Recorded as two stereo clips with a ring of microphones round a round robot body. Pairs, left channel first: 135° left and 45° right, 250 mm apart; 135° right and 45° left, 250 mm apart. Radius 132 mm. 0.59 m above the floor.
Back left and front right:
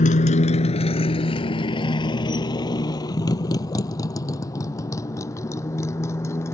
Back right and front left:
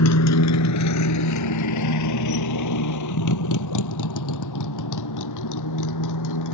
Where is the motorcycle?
165° right; by 6.5 s 145° right.